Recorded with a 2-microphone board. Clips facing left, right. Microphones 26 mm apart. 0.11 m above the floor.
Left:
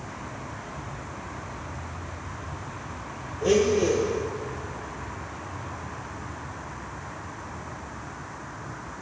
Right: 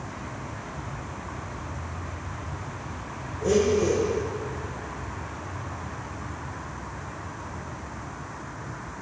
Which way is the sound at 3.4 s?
50° left (ahead or behind).